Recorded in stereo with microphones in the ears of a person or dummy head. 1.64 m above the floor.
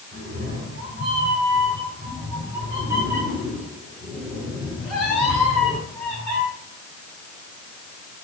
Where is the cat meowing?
55° right (ahead or behind), 2.5 m; by 6.4 s 5° left (ahead or behind), 5.5 m.